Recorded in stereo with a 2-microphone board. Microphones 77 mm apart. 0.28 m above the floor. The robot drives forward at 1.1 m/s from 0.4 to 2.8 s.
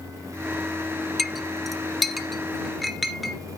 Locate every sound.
1.2 s a clink: centre (ahead or behind), 0.5 m